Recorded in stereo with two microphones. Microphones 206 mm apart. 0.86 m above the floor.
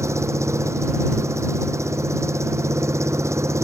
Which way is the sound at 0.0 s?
15° right (ahead or behind).